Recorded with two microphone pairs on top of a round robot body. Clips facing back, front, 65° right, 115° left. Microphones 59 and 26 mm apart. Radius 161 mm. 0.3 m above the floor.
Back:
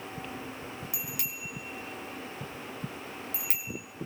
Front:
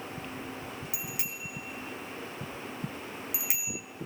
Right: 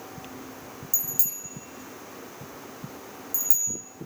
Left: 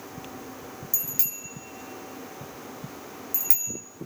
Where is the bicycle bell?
60° left, 5 m; by 3.8 s 80° left, 2.5 m.